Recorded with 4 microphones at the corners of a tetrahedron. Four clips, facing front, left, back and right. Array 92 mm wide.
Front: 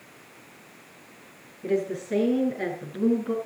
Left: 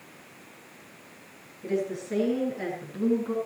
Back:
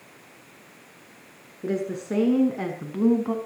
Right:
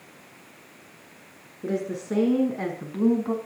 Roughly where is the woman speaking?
Behind right.